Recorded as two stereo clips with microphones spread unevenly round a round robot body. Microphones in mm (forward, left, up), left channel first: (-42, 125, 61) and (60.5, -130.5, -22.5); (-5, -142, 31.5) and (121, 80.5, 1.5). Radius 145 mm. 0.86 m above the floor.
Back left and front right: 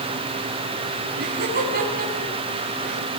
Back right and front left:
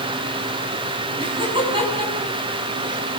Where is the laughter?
10° right, 8 m.